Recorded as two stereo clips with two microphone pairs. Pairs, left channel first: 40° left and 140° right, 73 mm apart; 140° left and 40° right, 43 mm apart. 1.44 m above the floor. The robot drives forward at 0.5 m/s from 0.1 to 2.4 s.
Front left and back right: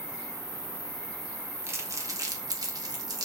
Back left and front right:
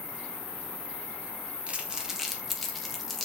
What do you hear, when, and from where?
0.0 s an insect: 15° left, 3 m; by 3.2 s 20° left, 2 m
1.7 s crumpling: 90° right, 0.6 m; by 3.2 s 130° right, 0.7 m